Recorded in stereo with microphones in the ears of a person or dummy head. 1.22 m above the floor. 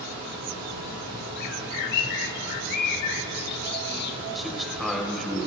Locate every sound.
0.0 s a fan: 70° right (ahead or behind), 6 m
1.4 s a bird: 55° left (ahead or behind), 1.3 m
4.3 s a man speaking: centre (ahead or behind), 4.5 m